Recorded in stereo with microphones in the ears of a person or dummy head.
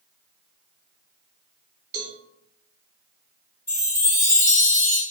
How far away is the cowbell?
About 1.0 m.